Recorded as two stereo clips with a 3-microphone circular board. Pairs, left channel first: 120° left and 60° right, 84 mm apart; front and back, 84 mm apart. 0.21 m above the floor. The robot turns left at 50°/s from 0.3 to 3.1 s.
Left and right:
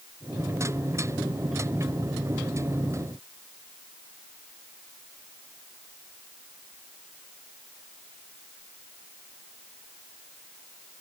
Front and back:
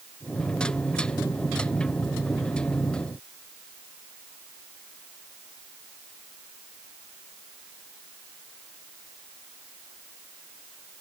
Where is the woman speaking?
I don't hear a woman speaking.